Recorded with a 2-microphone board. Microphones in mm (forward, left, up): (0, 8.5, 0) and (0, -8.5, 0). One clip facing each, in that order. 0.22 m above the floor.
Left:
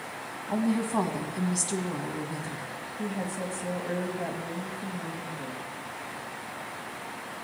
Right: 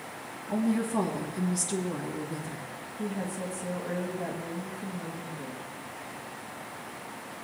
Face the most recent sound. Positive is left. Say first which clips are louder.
# left 1 dB
turn(degrees=30)  # may be behind; listen again after turning